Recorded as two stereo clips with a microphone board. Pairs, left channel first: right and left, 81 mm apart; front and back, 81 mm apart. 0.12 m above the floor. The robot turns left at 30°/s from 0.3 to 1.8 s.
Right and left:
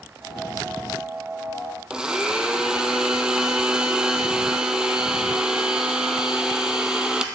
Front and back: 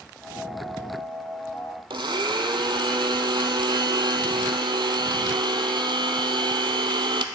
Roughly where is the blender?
Behind.